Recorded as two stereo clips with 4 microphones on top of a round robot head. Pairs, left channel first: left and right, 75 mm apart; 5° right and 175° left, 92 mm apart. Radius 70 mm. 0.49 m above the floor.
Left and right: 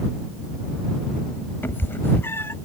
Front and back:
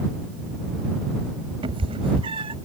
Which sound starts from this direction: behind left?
A cat meowing, at 1.6 s.